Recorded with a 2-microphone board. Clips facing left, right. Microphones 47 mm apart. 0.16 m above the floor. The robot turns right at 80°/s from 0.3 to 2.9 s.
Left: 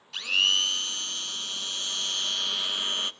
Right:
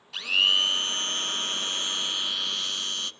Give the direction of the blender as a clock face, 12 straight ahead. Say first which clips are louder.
Right 2 dB; 6 o'clock.